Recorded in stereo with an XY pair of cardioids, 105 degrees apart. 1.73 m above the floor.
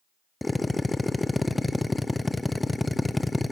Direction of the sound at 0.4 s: 10° left.